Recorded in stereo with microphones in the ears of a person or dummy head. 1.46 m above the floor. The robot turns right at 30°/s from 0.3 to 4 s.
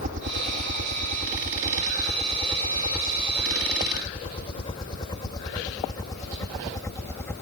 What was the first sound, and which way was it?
A helicopter, 45° right (ahead or behind).